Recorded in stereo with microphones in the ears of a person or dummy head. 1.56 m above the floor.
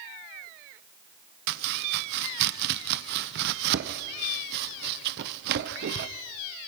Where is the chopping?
60° right (ahead or behind), 0.8 m.